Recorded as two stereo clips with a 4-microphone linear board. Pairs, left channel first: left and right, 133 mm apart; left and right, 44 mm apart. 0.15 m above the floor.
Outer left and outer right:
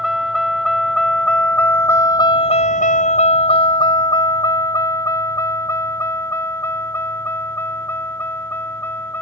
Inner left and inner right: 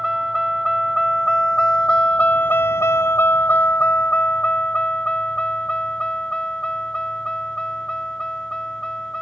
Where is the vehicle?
Centre (ahead or behind); by 9.2 s 15° left (ahead or behind).